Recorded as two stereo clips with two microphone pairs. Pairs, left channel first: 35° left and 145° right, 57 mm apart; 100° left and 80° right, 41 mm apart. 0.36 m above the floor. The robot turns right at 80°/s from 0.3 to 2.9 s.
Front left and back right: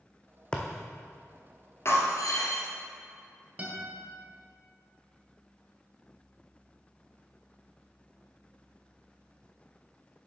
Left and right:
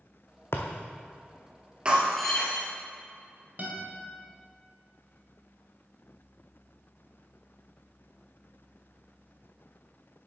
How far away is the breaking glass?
About 1.7 m.